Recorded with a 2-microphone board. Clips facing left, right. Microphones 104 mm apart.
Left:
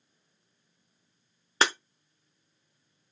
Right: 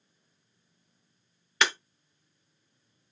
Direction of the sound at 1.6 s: 35° left (ahead or behind).